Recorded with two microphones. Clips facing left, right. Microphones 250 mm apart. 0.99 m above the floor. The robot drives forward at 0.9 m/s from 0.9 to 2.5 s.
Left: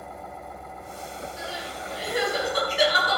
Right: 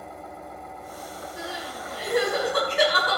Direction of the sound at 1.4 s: 80° right.